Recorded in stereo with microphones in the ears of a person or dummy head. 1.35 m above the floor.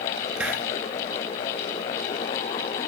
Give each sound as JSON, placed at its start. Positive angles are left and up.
{"t": 0.4, "sound": "a hiss", "side_deg": -5, "distance_m": 3.0}